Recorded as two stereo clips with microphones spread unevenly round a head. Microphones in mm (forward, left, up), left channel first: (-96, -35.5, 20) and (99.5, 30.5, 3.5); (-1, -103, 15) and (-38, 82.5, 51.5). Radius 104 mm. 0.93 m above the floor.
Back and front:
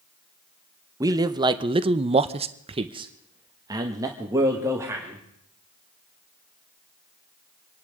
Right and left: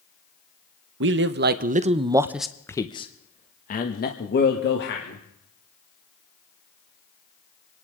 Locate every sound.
1.0 s a man speaking: 85° left, 1.0 m; by 5.2 s 60° right, 2 m